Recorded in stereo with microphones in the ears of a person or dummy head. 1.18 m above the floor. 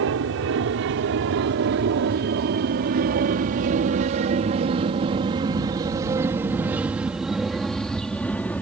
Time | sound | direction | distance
0.0 | an aircraft | 65° right (ahead or behind) | ?